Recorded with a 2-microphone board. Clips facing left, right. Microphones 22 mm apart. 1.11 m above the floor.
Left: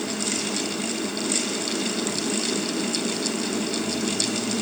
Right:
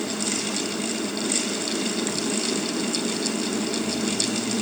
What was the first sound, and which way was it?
Only background noise.